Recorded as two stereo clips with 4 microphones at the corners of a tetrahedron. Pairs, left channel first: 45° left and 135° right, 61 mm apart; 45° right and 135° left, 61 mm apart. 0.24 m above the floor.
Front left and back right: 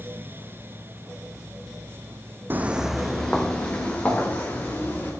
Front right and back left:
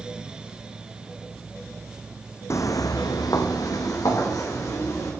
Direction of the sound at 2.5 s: 80° right.